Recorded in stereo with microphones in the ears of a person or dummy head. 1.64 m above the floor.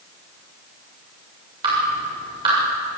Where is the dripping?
25° right (ahead or behind), 7.5 m.